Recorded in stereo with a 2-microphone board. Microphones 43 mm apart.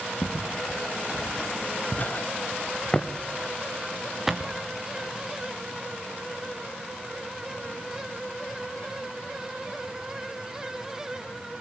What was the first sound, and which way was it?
Footsteps, 65° left (ahead or behind).